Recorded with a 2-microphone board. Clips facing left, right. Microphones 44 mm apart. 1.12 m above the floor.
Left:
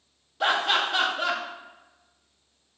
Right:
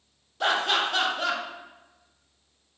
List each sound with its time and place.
0.4 s laughter: 10° left (ahead or behind), 0.9 m